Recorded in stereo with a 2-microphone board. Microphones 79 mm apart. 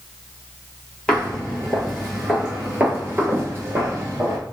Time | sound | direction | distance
1.1 | footsteps | 10° left (ahead or behind) | 1.7 m